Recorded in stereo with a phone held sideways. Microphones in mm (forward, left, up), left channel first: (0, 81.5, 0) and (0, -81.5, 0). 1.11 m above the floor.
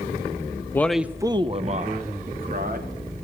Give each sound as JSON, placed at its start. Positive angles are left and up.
{"t": 0.7, "sound": "a man speaking", "side_deg": 15, "distance_m": 0.5}